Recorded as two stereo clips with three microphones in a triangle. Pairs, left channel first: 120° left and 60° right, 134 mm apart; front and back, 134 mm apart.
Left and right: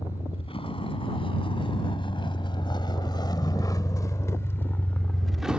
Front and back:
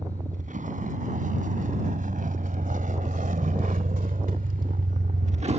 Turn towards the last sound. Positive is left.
turn(degrees=-140)